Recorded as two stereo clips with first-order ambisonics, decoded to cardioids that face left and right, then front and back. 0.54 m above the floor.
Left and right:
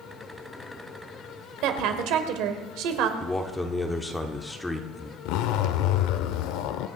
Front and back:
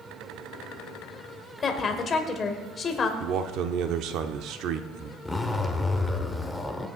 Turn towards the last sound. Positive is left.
turn(degrees=80)